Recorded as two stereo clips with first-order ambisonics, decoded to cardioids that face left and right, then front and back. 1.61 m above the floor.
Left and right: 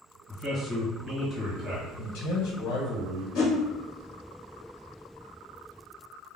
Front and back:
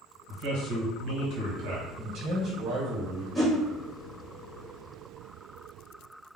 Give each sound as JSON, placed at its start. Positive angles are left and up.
{"t": 0.3, "sound": "a man speaking", "azimuth_deg": -165, "distance_m": 1.5}
{"t": 2.0, "sound": "a man speaking", "azimuth_deg": 125, "distance_m": 1.3}
{"t": 3.4, "sound": "a whoosh", "azimuth_deg": 95, "distance_m": 0.8}